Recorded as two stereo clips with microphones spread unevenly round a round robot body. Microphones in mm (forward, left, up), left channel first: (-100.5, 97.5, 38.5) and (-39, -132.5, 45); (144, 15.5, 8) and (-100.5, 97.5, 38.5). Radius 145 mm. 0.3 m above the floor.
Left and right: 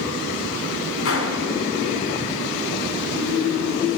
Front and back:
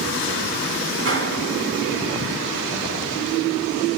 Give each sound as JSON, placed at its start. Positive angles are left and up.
{"t": 1.1, "sound": "a gunshot", "azimuth_deg": 120, "distance_m": 4.0}